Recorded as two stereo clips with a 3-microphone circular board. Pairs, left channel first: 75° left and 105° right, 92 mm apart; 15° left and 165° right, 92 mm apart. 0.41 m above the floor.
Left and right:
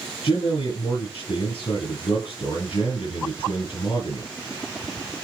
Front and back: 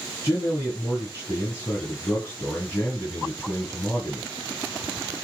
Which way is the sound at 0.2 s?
80° left.